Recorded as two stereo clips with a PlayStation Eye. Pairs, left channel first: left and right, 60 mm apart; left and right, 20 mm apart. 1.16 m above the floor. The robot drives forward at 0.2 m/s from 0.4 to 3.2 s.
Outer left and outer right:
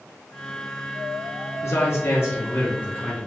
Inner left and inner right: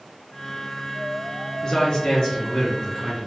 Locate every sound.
1.6 s a man speaking: 50° left (ahead or behind), 0.5 m; by 3.3 s 30° left (ahead or behind), 0.7 m